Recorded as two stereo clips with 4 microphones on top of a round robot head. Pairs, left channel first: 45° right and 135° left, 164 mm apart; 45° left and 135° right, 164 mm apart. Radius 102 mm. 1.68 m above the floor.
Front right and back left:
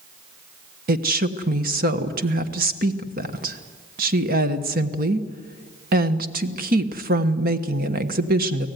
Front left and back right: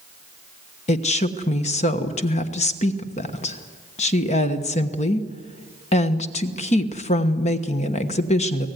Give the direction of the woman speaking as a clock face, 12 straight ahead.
9 o'clock.